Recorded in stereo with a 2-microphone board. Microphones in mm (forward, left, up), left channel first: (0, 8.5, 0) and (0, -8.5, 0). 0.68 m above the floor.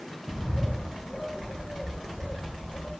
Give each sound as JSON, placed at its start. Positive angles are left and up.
{"t": 0.3, "sound": "a bird", "side_deg": 80, "distance_m": 2.0}